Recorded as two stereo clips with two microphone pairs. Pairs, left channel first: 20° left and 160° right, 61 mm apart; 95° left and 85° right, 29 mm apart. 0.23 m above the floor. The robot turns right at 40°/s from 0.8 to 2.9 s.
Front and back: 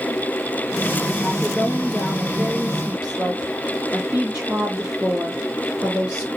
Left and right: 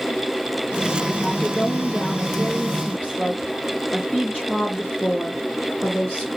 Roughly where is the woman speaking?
Left.